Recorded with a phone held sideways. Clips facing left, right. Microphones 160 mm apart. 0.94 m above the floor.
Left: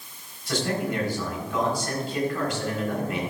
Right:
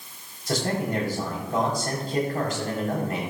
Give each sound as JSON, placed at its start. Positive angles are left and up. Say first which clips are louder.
{"t": 0.5, "sound": "a man speaking", "louder": "right 1 dB", "side_deg": -40, "distance_m": 4.5}